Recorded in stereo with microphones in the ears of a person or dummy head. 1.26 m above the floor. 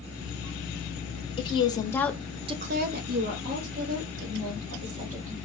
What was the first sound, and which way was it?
A woman speaking, 25° left (ahead or behind).